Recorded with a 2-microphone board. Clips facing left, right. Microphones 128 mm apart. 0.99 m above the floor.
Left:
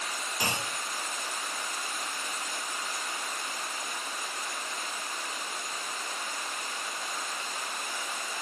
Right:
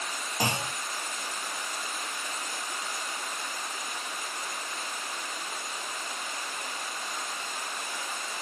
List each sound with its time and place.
0.4 s a clunk: 45° right (ahead or behind), 1.6 m